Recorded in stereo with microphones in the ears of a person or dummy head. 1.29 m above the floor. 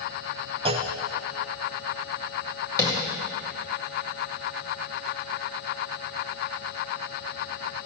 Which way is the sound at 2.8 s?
20° left (ahead or behind).